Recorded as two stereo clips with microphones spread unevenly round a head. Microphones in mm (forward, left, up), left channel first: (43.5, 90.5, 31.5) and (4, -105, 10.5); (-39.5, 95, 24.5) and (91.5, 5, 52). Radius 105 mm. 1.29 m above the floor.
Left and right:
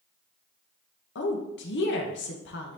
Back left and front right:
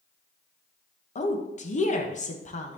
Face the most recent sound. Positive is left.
turn(degrees=115)